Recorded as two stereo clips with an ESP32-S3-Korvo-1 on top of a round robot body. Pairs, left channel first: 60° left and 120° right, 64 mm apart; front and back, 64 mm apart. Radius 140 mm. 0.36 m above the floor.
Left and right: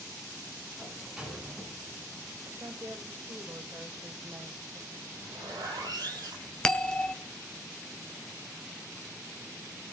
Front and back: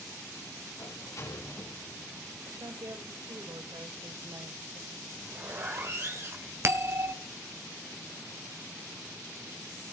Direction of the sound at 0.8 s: 40° right.